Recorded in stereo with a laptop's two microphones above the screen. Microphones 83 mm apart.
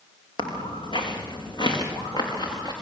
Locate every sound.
0.4 s footsteps: 75° left (ahead or behind), 3.5 m; by 2.7 s 60° left (ahead or behind), 6 m